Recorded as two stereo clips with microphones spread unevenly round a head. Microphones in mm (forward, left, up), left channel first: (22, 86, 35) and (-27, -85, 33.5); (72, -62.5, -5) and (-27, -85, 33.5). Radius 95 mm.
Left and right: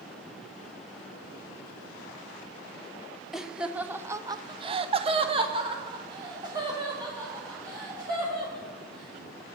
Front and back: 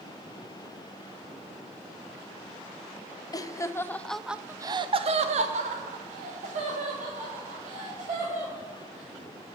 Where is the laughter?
20° right, 0.9 m; by 9.6 s straight behind, 3 m.